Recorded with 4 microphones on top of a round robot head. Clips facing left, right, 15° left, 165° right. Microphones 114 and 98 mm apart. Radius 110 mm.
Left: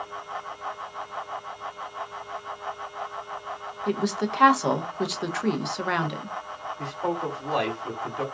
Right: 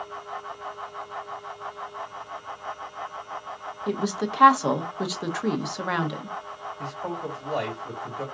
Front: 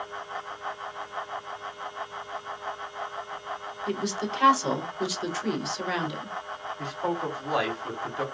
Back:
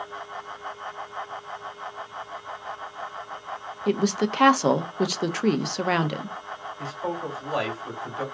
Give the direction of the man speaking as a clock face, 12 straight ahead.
9 o'clock.